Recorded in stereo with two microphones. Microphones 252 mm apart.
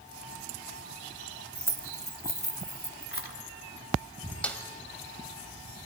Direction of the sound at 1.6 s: 5° left (ahead or behind).